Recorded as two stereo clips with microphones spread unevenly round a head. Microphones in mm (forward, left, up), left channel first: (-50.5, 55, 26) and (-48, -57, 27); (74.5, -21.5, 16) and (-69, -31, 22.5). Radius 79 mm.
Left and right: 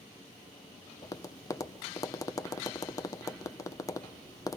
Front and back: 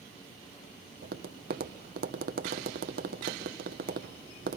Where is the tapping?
150° left, 0.7 m.